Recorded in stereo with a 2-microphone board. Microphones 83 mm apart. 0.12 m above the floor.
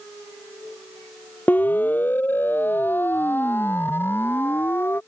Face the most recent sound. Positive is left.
turn(degrees=25)  # may be behind; listen again after turning